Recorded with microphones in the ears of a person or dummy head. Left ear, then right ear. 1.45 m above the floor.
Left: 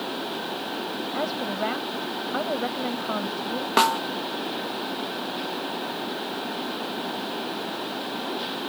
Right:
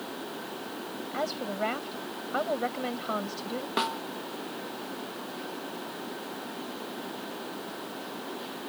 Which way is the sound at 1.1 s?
15° right (ahead or behind).